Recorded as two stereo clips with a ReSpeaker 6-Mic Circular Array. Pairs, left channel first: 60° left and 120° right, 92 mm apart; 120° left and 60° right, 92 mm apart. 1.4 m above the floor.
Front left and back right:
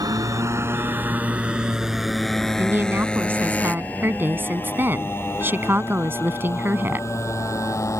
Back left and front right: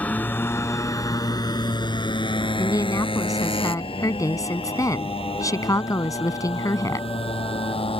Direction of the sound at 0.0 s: 165° right.